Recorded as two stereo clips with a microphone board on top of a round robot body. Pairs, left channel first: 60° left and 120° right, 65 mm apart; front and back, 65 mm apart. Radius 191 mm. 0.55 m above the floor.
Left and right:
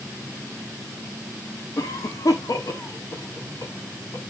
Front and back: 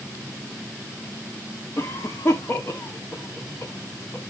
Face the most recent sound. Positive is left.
turn(degrees=50)